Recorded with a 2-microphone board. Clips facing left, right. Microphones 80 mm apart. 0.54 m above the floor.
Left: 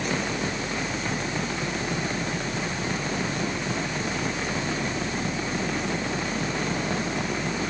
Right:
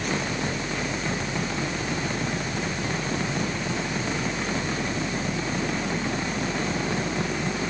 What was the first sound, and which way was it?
Only background noise.